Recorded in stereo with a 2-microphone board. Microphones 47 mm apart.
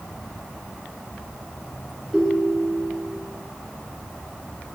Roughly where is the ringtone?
Centre.